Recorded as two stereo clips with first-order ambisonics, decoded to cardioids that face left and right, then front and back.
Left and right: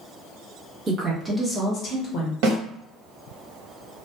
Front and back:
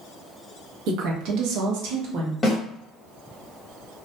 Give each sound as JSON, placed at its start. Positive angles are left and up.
{"t": 0.9, "sound": "a woman speaking", "azimuth_deg": -155, "distance_m": 0.9}
{"t": 2.4, "sound": "a snare drum", "azimuth_deg": -80, "distance_m": 0.9}